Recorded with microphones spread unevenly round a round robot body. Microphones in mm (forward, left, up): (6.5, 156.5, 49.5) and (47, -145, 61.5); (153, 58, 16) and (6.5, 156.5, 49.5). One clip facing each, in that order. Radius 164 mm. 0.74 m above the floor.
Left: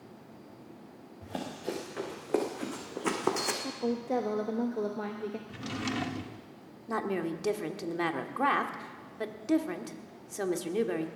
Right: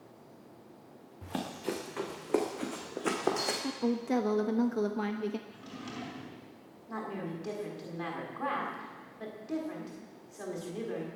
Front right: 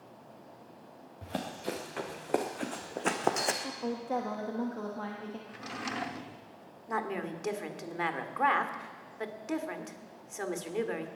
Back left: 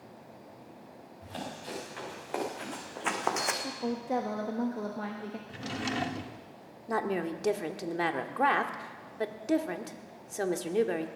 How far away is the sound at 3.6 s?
About 1.0 m.